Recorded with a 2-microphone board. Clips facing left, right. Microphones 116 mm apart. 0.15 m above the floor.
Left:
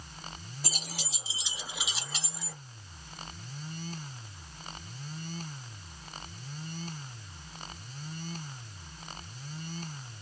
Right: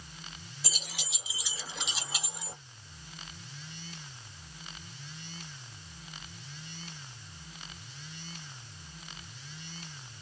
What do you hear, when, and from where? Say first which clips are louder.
0.6 s keys jangling: left 3 dB; 50° left (ahead or behind), 1.6 m; by 2.6 s 25° right (ahead or behind), 1.3 m